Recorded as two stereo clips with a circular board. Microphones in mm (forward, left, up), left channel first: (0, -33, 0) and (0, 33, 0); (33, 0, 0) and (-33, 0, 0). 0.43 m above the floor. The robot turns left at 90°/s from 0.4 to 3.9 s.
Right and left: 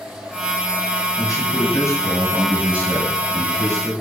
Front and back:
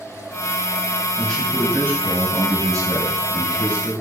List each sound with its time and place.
1.2 s a man speaking: 65° right, 2.5 m; by 3.9 s 50° left, 2.5 m